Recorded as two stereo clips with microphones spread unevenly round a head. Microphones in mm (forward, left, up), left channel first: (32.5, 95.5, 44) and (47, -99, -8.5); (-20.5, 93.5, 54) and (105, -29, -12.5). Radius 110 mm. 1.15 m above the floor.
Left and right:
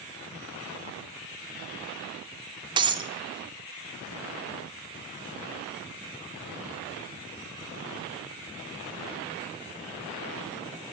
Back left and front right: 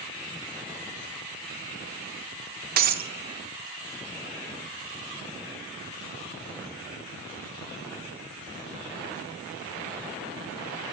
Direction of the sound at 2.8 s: 10° right.